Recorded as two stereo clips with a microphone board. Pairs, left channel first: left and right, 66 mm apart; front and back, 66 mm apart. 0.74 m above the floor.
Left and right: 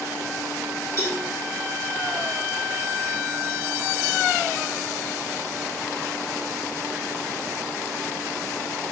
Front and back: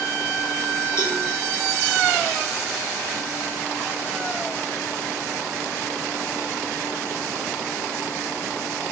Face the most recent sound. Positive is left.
turn(degrees=40)